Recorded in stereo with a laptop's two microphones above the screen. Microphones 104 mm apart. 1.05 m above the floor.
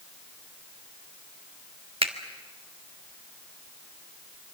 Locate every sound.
2.0 s a finger snap: 65° right (ahead or behind), 1.4 m